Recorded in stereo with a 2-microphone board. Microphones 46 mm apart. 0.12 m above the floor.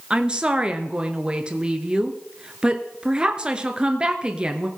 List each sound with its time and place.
0.1 s a woman speaking: 20° right (ahead or behind), 1.4 m